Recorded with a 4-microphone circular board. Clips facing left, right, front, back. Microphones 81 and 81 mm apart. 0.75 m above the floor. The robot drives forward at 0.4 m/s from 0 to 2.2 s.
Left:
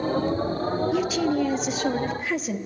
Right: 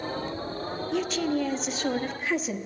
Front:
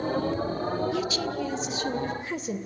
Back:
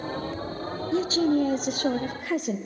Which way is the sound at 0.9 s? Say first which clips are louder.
Even, back 6 dB; 170° left.